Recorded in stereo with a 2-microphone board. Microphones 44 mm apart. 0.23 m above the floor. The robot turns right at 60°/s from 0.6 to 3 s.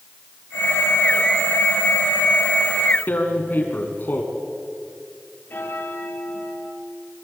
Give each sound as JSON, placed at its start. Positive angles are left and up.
{"t": 3.1, "sound": "tearing paper", "side_deg": 45, "distance_m": 3.0}
{"t": 5.5, "sound": "a bell", "side_deg": 50, "distance_m": 3.5}